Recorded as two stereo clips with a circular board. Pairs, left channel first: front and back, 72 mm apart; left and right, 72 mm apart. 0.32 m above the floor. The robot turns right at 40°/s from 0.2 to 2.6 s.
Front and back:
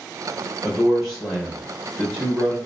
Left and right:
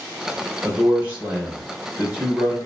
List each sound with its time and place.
0.6 s a man speaking: 100° right, 1.2 m; by 2.6 s 20° right, 1.2 m